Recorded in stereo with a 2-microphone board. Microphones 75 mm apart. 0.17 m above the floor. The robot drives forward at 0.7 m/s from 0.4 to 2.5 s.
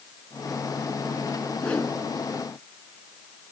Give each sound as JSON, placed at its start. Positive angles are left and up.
{"t": 1.6, "sound": "a whoosh", "side_deg": 15, "distance_m": 2.0}